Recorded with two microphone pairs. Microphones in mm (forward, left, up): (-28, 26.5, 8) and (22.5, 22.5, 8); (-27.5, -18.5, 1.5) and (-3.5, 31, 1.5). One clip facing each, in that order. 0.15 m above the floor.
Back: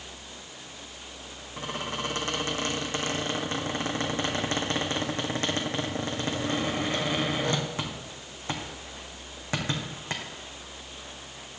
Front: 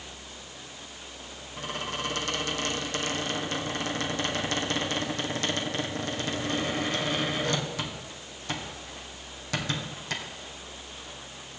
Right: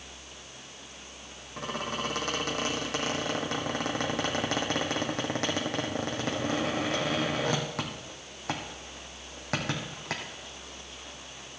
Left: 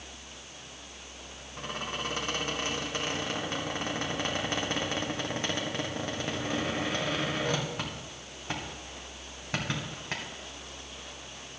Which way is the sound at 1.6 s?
125° right.